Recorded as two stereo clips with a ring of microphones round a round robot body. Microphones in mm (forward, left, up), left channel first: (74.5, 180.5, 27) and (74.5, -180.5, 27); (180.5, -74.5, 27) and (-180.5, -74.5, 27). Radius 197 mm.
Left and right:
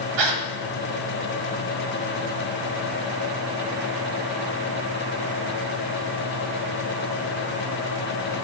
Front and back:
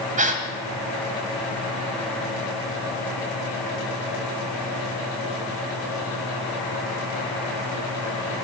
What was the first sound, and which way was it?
A gasp, 110° right.